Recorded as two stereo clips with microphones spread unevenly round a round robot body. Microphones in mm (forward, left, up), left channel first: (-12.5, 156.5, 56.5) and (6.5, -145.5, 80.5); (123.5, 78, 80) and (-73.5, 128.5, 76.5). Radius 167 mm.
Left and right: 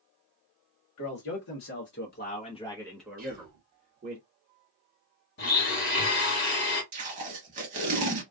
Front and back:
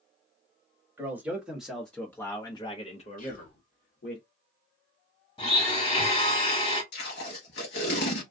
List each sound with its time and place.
1.0 s a man speaking: 90° left, 1.3 m; by 4.2 s 35° right, 1.1 m
3.2 s whispering: 30° right, 1.5 m
5.4 s a blender: 45° left, 1.6 m
6.9 s tape being pulled: 35° right, 0.6 m